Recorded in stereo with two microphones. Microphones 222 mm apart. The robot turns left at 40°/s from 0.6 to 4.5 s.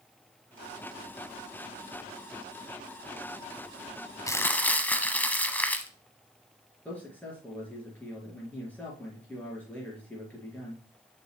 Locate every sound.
4.3 s crumpling: 15° left (ahead or behind), 0.7 m; by 5.9 s 10° left (ahead or behind), 0.7 m
6.8 s a man speaking: 5° left (ahead or behind), 5 m